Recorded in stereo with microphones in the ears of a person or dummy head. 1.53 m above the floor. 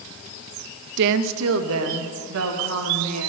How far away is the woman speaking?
About 0.5 m.